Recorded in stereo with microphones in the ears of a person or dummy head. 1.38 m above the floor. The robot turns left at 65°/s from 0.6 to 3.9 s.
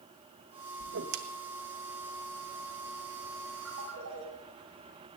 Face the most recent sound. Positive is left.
turn(degrees=-65)  # may be behind; listen again after turning